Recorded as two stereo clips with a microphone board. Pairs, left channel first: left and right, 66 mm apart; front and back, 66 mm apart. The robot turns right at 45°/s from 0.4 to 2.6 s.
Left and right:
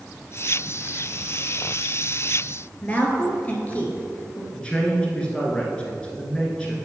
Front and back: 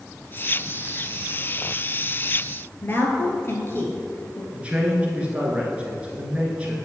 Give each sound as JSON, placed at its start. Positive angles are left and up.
{"t": 2.8, "sound": "a woman speaking", "azimuth_deg": 35, "distance_m": 1.4}
{"t": 4.5, "sound": "a man speaking", "azimuth_deg": 140, "distance_m": 1.4}